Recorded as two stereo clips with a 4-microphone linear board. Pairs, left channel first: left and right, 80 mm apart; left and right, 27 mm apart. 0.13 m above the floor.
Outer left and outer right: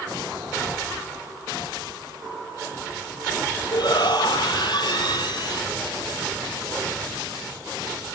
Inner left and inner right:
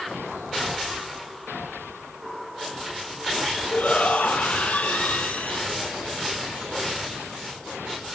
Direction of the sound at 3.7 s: 65° left (ahead or behind).